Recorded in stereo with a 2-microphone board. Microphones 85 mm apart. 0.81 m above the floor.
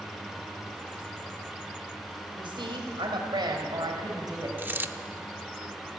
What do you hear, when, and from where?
2.4 s a woman speaking: 75° right (ahead or behind), 3.5 m; by 4.5 s 45° right (ahead or behind), 4.5 m
4.6 s a dropped coin: 25° right (ahead or behind), 0.7 m